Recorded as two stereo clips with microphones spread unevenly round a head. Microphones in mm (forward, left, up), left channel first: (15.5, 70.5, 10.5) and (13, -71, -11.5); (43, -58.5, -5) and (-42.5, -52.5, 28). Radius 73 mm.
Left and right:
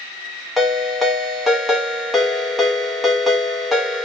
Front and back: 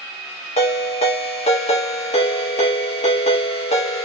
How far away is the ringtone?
About 0.9 m.